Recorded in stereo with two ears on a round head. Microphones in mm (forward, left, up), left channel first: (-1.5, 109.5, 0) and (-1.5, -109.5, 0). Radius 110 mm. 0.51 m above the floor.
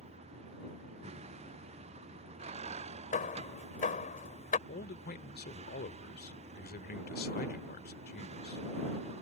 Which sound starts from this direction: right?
A vehicle, at 0.0 s.